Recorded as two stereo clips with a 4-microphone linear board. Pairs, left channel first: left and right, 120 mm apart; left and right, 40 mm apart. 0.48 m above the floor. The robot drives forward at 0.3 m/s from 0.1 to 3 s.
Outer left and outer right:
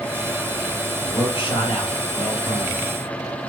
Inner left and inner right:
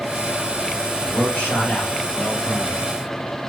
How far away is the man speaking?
About 1.3 m.